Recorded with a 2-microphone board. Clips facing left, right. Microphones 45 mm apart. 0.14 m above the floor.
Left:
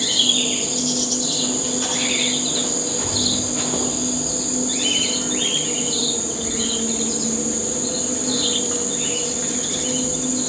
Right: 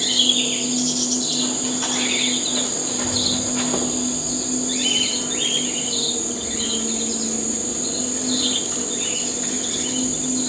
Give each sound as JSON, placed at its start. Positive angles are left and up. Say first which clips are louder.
{"t": 0.0, "sound": "an insect", "louder": "even", "side_deg": 70, "distance_m": 5.5}
{"t": 1.4, "sound": "running footsteps", "louder": "even", "side_deg": 0, "distance_m": 6.0}
{"t": 2.8, "sound": "a child speaking", "louder": "even", "side_deg": 45, "distance_m": 5.0}